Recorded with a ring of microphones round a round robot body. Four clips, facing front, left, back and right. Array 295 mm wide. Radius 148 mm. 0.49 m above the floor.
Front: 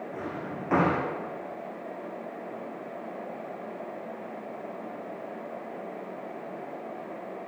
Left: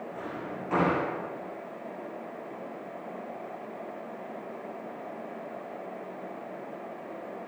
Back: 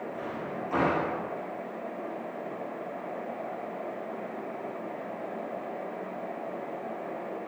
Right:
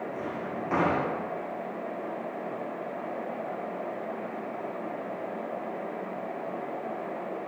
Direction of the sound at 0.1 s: 15° right.